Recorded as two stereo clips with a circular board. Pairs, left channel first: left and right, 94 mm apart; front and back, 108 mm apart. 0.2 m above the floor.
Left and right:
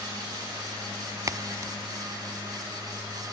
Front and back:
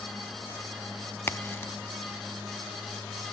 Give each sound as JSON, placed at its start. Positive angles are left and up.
{"t": 1.3, "sound": "a crack", "azimuth_deg": -60, "distance_m": 0.7}